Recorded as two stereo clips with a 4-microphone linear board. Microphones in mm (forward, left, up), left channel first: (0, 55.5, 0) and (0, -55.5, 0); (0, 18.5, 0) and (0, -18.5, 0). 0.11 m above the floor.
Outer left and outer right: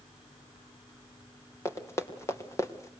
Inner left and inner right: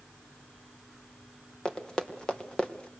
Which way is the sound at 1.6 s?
25° left (ahead or behind).